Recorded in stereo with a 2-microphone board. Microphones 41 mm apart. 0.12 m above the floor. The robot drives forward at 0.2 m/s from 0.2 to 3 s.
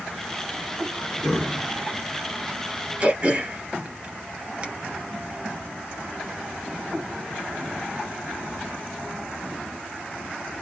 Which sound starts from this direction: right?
Throat clearing, at 3.0 s.